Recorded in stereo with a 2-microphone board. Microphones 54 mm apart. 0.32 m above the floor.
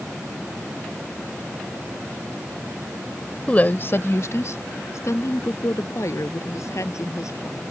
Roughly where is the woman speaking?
Left.